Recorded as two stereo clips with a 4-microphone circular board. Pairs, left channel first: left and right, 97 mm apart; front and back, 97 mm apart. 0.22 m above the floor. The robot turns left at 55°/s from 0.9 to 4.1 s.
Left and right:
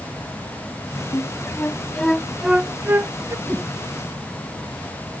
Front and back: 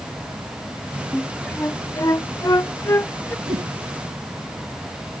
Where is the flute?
65° left; by 3.4 s 55° right.